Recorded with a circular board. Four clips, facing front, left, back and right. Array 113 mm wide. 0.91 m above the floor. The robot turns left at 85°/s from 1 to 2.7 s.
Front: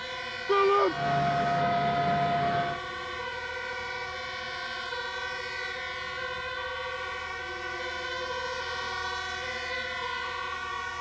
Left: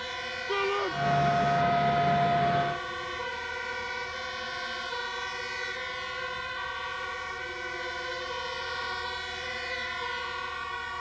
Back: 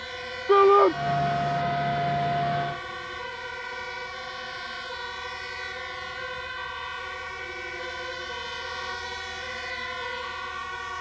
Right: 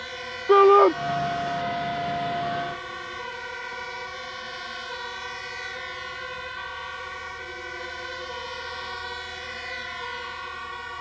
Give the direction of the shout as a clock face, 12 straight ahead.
4 o'clock.